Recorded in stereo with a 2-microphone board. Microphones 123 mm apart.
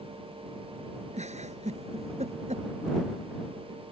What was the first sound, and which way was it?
A giggle, 65° right (ahead or behind).